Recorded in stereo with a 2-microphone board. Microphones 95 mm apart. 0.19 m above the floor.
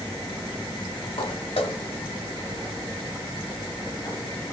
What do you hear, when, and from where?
1.2 s footsteps: 70° left (ahead or behind), 1.5 m; by 4.2 s 45° left (ahead or behind), 2 m